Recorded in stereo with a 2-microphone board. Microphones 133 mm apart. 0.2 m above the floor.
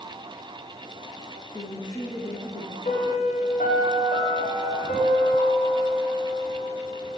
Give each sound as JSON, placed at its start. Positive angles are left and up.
{"t": 1.5, "sound": "a woman speaking", "side_deg": 35, "distance_m": 2.5}
{"t": 2.9, "sound": "a piano", "side_deg": 85, "distance_m": 5.5}